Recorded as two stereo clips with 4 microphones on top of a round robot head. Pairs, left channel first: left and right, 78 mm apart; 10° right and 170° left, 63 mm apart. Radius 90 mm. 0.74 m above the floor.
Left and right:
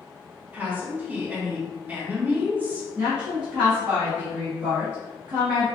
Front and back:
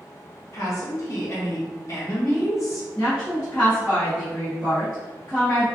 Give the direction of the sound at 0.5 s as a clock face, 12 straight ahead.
1 o'clock.